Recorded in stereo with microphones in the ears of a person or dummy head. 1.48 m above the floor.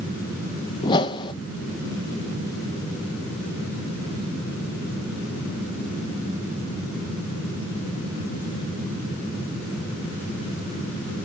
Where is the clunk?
I don't hear a clunk.